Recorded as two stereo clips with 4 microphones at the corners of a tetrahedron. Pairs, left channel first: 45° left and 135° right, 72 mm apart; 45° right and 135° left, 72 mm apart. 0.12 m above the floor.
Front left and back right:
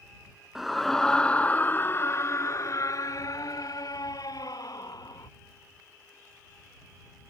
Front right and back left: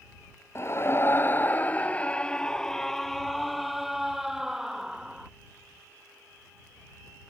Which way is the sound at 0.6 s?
50° right.